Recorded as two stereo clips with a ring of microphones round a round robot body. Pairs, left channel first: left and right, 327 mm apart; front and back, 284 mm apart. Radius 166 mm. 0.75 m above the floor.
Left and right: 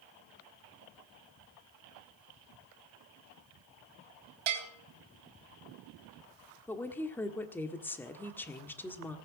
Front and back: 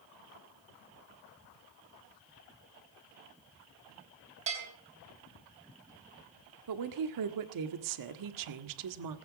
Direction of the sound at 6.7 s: 175° left.